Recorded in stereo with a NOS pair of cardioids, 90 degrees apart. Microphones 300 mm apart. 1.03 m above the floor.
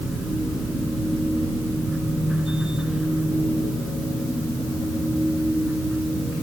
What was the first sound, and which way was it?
A machine running, straight ahead.